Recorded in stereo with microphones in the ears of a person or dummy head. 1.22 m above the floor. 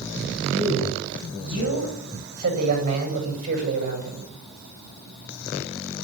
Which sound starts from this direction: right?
A man speaking, at 0.5 s.